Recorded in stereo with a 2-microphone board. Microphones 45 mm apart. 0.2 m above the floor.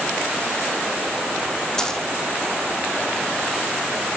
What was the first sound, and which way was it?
A dropped coin, 10° left (ahead or behind).